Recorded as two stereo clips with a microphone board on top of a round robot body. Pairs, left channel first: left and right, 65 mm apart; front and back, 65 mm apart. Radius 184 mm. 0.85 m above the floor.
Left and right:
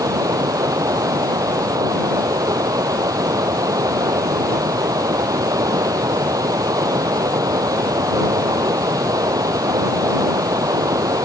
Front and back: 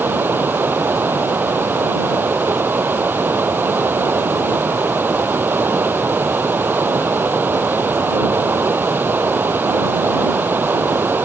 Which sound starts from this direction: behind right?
Running water, at 0.0 s.